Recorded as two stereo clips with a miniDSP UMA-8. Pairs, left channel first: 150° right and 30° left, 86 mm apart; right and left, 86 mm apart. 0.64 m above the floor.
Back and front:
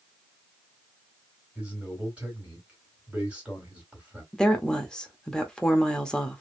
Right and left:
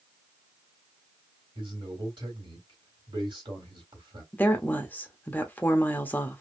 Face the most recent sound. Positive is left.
turn(degrees=-85)